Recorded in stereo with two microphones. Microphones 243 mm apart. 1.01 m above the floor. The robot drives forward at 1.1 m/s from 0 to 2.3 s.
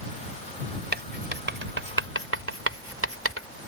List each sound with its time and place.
0.9 s writing: 45° right (ahead or behind); by 3.5 s 60° right (ahead or behind)